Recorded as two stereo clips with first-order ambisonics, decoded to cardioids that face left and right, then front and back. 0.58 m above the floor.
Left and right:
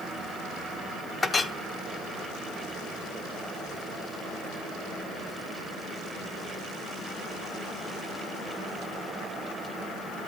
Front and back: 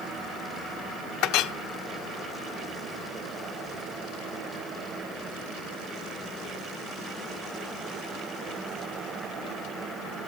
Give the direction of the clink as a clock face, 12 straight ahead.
11 o'clock.